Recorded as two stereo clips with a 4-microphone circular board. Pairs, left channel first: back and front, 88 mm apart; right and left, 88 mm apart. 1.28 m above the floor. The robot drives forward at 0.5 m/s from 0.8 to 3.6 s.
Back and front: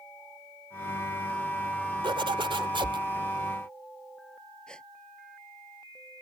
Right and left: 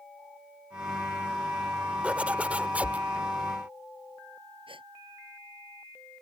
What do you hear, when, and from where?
2.0 s a zipper: 15° left
4.7 s a gasp: 100° left